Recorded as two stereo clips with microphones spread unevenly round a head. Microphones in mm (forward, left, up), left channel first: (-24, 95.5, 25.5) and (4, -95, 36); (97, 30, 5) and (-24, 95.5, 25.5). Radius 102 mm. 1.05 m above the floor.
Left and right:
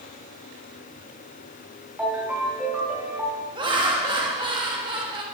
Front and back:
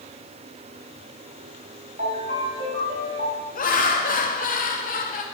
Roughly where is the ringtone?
Behind.